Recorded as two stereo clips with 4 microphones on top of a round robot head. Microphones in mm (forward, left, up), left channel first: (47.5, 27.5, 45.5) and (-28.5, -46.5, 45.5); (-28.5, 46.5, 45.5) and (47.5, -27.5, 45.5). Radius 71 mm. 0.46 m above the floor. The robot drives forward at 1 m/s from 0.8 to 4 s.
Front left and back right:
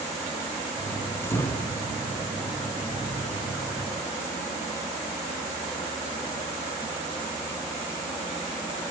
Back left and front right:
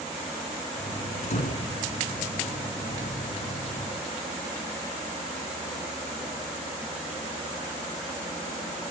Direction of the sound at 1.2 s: 110° left.